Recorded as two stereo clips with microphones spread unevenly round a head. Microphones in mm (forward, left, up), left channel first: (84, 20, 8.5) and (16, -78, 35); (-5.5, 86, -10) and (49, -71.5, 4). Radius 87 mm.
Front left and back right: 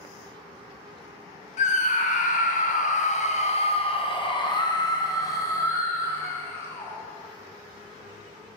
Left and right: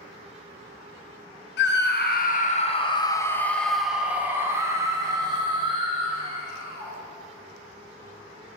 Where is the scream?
90° left, 1.0 m; by 7.0 s 15° right, 2.5 m.